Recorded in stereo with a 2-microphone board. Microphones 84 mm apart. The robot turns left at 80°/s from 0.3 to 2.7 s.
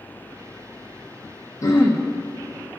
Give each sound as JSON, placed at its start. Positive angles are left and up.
{"t": 1.6, "sound": "throat clearing", "azimuth_deg": 45, "distance_m": 1.3}